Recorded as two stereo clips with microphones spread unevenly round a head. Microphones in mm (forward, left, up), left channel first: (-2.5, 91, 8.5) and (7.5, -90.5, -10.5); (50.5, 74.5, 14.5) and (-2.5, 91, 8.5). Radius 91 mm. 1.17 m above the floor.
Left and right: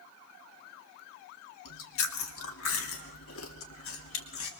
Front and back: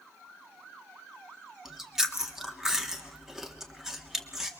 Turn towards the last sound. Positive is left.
turn(degrees=80)